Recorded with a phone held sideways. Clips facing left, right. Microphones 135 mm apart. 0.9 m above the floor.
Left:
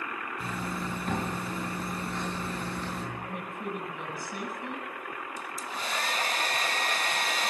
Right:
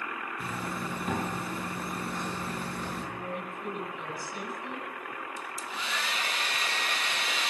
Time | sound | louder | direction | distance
0.4 | a zipper | left 1 dB | 5° right (ahead or behind) | 8 m
3.1 | a woman speaking | right 1 dB | 55° left (ahead or behind) | 9 m
5.4 | a hair dryer | left 1 dB | 40° left (ahead or behind) | 0.9 m